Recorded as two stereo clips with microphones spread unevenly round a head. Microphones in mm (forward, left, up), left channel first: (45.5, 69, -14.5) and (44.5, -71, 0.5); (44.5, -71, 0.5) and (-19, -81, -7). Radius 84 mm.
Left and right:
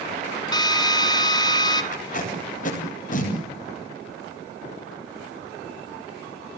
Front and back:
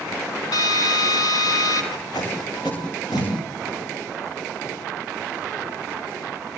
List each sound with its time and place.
0.5 s a drill: 30° left, 3 m
1.9 s tape being pulled: 60° left, 8.5 m